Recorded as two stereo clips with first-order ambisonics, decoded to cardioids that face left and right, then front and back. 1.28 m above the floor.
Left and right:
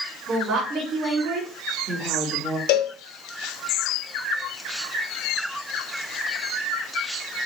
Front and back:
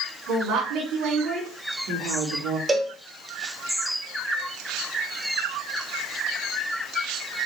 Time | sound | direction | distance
0.3 | a woman speaking | 165° right | 3.5 m
2.7 | a cowbell | 105° left | 0.7 m